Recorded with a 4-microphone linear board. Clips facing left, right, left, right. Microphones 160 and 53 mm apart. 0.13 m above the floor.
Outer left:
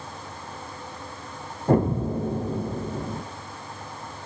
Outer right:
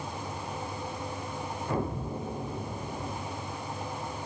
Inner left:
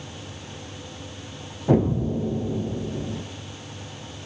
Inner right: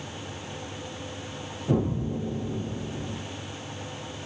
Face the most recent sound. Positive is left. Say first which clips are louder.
# outer left 12 dB, inner left 6 dB
turn(degrees=55)  # may be behind; listen again after turning